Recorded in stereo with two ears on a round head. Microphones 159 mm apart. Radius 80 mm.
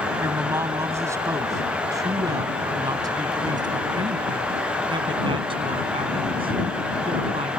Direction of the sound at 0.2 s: 15° right (ahead or behind).